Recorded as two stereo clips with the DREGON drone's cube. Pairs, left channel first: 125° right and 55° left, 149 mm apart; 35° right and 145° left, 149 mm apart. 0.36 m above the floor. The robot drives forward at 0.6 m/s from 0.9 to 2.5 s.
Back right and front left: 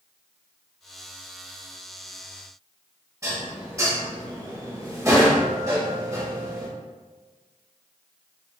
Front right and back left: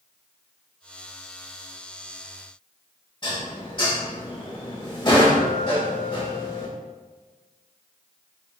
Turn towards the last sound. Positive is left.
turn(degrees=0)